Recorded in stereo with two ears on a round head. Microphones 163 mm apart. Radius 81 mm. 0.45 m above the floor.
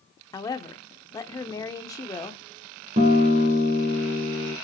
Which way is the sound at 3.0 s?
40° right (ahead or behind).